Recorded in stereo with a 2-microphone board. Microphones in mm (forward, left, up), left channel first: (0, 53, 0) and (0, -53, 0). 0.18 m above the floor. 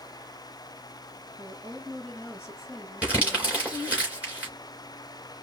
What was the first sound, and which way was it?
A woman speaking, 5° right (ahead or behind).